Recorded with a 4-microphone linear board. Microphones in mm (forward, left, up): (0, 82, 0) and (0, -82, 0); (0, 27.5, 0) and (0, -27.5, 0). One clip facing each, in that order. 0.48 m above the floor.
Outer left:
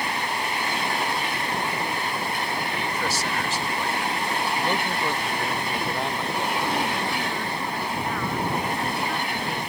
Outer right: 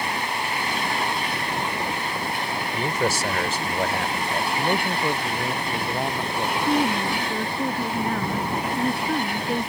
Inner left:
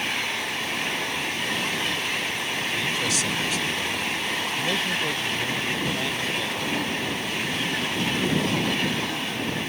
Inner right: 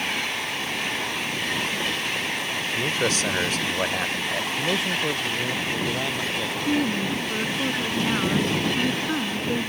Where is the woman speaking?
40° right (ahead or behind).